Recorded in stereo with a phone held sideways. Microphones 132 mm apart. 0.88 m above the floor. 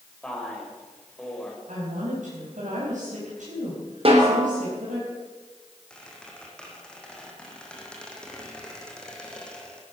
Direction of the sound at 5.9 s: 5° left (ahead or behind).